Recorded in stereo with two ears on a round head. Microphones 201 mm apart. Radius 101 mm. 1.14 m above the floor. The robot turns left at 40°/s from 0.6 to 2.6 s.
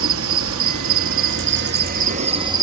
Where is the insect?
80° right, 0.8 m; by 2.6 s 160° right, 0.8 m.